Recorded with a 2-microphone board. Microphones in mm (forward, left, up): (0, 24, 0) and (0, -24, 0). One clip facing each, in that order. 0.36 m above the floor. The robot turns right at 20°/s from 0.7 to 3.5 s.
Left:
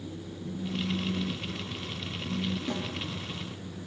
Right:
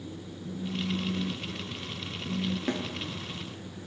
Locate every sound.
0.4 s a phone buzzing: 165° right, 5.5 m; by 2.6 s 125° right, 5.5 m
2.7 s a snare drum: 50° right (ahead or behind), 4.5 m; by 2.8 s 55° right (ahead or behind), 4.5 m